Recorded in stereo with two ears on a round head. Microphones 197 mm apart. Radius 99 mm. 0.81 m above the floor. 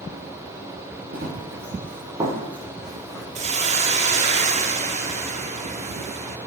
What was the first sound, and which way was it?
Running footsteps, 45° right (ahead or behind).